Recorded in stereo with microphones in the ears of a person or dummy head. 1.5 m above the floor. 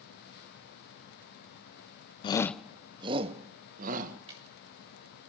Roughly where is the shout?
Left.